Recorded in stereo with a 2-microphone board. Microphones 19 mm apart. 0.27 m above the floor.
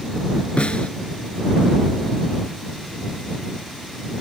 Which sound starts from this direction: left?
A snare drum, at 0.6 s.